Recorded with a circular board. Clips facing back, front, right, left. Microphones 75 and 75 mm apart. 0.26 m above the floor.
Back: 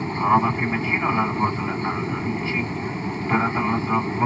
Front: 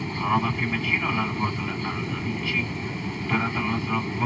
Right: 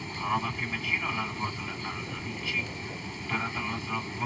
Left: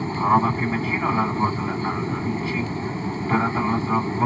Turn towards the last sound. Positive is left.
turn(degrees=125)